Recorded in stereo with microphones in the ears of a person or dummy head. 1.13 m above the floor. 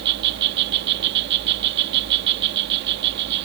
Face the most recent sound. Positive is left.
turn(degrees=-60)  # may be behind; listen again after turning